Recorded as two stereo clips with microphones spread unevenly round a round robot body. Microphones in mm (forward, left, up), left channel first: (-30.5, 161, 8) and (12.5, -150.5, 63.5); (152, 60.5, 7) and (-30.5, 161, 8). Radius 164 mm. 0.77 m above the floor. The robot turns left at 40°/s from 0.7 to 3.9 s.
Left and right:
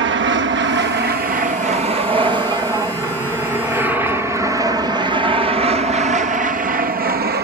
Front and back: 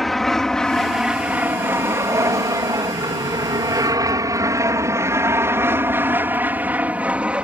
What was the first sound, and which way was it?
An aircraft, 120° right.